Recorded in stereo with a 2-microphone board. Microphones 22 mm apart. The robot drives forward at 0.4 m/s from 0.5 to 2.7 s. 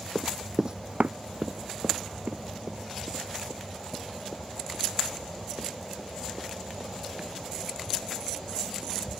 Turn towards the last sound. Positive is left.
turn(degrees=-60)  # may be behind; listen again after turning